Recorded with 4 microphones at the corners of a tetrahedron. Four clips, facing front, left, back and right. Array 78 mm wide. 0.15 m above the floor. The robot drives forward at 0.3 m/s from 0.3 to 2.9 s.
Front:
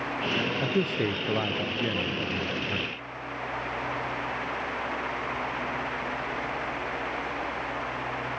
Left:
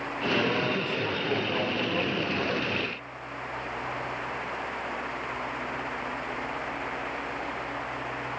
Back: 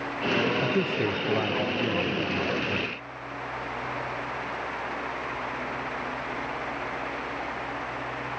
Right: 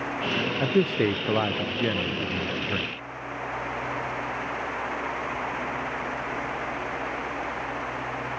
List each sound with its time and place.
0.6 s a man speaking: 90° right; by 2.9 s 95° right